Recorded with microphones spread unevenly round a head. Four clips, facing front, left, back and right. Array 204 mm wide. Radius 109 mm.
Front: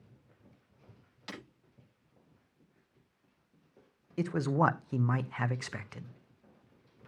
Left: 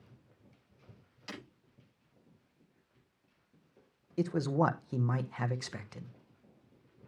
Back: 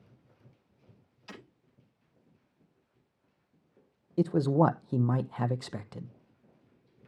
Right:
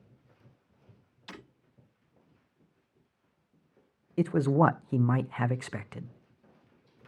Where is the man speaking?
130° right, 0.6 m.